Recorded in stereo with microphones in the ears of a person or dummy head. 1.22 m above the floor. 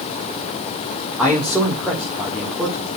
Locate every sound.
1.2 s a man speaking: 5° right (ahead or behind), 1.8 m